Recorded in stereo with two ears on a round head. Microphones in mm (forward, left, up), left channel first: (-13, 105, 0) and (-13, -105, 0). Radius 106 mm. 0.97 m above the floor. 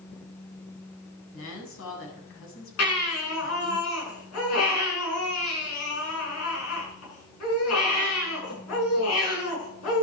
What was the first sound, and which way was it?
A woman speaking, 65° left (ahead or behind).